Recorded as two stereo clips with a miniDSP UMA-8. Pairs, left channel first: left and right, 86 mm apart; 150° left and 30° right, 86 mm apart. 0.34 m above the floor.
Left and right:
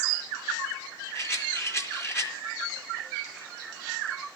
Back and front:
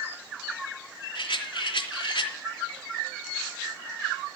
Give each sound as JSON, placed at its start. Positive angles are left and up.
{"t": 1.1, "sound": "a rattle", "azimuth_deg": 145, "distance_m": 3.0}